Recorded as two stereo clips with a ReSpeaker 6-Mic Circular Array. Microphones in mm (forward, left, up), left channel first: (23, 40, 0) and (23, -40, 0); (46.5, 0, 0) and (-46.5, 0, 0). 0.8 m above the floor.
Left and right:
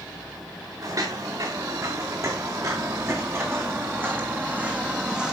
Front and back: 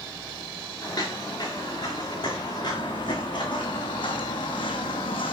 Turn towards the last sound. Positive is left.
turn(degrees=-10)